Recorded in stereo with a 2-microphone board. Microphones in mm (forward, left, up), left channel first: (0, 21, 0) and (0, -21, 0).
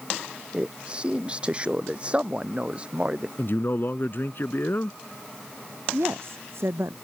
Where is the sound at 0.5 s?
25° right (ahead or behind); by 3.3 s 30° right (ahead or behind).